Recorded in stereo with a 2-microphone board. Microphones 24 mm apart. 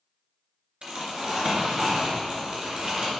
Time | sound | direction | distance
0.8 | crumpling | 45° right (ahead or behind) | 2 m